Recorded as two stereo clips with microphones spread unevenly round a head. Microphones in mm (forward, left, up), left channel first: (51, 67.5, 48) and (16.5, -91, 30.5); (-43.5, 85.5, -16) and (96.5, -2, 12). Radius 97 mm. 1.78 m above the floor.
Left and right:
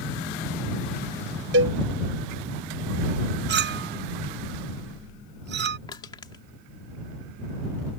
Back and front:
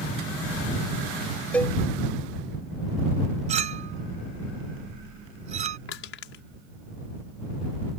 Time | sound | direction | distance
1.5 | a cowbell | 125° right | ?
3.5 | a clink | 85° right | ?
5.9 | crushing | 145° left | ?